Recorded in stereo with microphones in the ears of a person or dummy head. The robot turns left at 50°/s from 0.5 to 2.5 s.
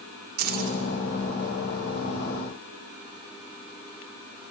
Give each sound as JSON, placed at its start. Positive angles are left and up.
{"t": 0.4, "sound": "keys jangling", "side_deg": -45, "distance_m": 1.7}